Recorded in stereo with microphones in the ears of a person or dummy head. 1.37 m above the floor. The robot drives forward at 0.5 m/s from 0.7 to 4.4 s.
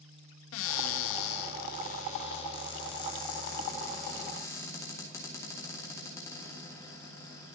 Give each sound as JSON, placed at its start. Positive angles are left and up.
{"t": 0.5, "sound": "a cupboard door", "side_deg": 70, "distance_m": 0.5}